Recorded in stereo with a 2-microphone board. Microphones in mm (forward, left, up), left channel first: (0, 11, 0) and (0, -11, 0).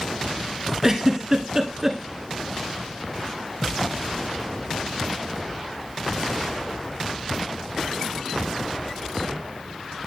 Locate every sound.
0.8 s a giggle: 25° right (ahead or behind), 1.2 m